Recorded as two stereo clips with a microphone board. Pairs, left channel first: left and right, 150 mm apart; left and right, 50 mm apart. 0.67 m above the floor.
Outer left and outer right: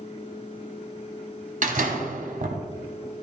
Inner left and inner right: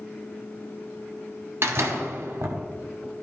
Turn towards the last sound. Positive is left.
turn(degrees=-60)  # may be behind; listen again after turning